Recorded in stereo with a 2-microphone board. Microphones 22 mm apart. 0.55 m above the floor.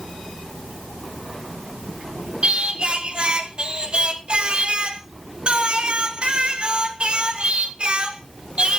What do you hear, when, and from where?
2.4 s singing: 55° right (ahead or behind), 1.1 m